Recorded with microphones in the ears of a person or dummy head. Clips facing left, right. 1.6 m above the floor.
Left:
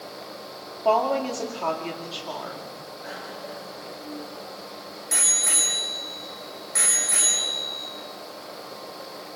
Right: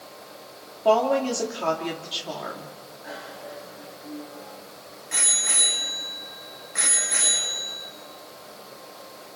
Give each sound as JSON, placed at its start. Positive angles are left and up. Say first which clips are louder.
{"t": 0.8, "sound": "a woman speaking", "louder": "right 2 dB", "side_deg": -15, "distance_m": 3.0}
{"t": 3.0, "sound": "a bicycle bell", "louder": "even", "side_deg": 50, "distance_m": 7.0}